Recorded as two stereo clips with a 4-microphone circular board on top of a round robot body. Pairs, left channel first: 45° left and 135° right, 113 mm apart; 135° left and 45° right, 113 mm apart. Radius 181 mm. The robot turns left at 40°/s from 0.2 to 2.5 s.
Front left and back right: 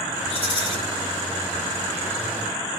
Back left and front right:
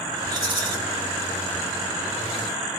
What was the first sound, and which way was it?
A rattle, 15° left.